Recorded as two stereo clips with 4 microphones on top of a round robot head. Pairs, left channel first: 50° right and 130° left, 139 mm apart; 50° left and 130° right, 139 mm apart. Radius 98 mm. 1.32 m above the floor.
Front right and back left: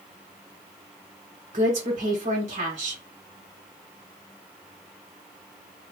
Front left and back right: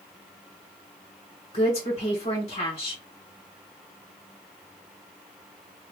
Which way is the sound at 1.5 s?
85° left.